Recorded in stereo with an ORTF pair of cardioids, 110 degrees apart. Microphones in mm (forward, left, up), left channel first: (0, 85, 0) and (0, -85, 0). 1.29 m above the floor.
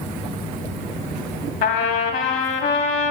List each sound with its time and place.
1.6 s a trumpet: 70° left, 1.1 m